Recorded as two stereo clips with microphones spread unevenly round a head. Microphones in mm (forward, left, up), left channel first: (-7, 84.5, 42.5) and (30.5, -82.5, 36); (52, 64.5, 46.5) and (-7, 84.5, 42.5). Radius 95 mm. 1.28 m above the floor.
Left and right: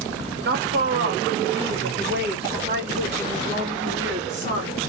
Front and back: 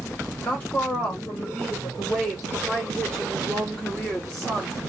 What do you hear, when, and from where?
0.5 s a woman speaking: 90° right, 1.1 m; by 4.9 s 95° right, 3.5 m